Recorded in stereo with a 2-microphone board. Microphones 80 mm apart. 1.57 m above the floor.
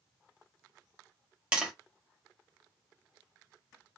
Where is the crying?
No crying in this recording.